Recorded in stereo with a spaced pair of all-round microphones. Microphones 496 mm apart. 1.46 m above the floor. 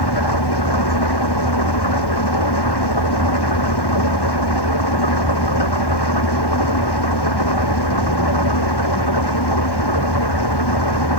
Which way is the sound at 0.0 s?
50° left (ahead or behind).